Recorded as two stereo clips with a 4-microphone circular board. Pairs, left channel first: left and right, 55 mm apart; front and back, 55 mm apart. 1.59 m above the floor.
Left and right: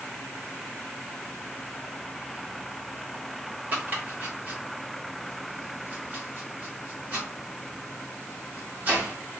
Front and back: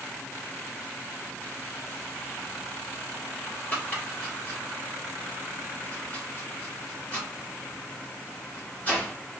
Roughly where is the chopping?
Ahead right.